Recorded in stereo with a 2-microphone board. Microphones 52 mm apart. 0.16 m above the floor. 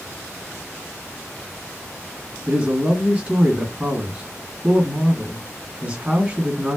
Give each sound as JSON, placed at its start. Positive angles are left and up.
{"t": 2.5, "sound": "a man speaking", "side_deg": -25, "distance_m": 1.6}